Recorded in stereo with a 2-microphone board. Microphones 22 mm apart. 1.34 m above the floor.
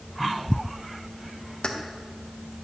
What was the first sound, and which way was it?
Keys jangling, 45° left (ahead or behind).